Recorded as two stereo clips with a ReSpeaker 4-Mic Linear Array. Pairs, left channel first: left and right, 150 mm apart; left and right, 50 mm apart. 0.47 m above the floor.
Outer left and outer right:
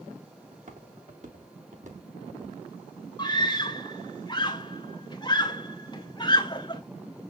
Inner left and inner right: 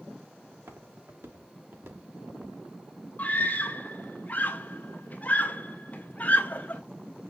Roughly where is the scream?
Left.